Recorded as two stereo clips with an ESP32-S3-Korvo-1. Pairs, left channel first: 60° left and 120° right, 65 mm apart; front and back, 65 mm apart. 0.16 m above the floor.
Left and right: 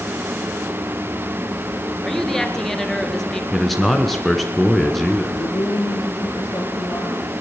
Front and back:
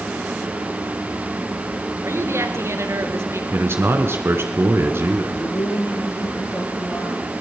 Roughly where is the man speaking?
Behind left.